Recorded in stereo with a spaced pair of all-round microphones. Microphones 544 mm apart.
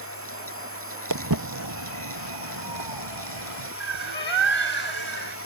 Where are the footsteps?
40° right (ahead or behind); by 3.7 s 60° right (ahead or behind).